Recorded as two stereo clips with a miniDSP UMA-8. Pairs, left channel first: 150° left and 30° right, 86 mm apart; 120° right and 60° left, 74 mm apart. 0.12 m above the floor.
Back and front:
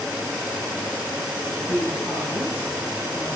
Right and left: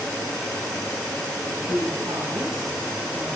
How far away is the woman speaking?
About 4 m.